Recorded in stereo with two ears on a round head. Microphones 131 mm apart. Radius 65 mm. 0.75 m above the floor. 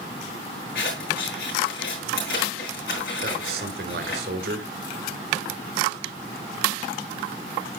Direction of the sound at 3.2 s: 75° right (ahead or behind).